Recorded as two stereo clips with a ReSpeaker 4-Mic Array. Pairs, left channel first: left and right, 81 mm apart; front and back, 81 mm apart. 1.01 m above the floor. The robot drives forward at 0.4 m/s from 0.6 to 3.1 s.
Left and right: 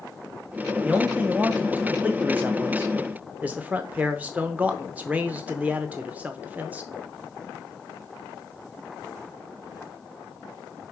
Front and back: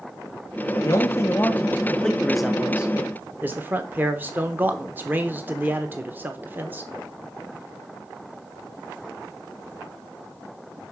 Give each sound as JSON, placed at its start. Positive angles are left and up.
{"t": 0.8, "sound": "a man speaking", "azimuth_deg": -25, "distance_m": 0.9}